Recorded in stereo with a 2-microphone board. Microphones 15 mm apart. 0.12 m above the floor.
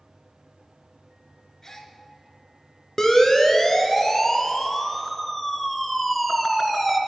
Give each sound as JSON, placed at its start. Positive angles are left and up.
{"t": 1.6, "sound": "a gasp", "side_deg": 35, "distance_m": 2.0}
{"t": 3.0, "sound": "a siren", "side_deg": 30, "distance_m": 2.5}